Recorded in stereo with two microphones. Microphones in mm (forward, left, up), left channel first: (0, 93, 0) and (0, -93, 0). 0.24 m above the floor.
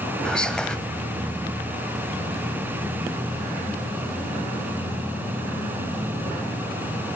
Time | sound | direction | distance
0.2 | whispering | 5° left (ahead or behind) | 1.4 m